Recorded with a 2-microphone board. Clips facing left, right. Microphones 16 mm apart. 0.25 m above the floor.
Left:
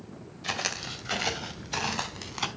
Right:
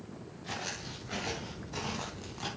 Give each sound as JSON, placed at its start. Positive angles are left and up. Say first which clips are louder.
{"t": 0.4, "sound": "footsteps", "louder": "left 8 dB", "side_deg": 80, "distance_m": 3.5}